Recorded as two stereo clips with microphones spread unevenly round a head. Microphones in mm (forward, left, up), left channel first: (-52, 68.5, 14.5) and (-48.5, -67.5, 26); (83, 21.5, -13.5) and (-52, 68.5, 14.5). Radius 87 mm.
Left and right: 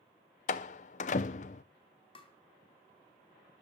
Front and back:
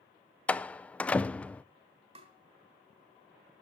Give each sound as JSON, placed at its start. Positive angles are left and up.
{"t": 0.5, "sound": "a door slam", "azimuth_deg": 70, "distance_m": 0.6}
{"t": 2.1, "sound": "tapping", "azimuth_deg": 140, "distance_m": 2.5}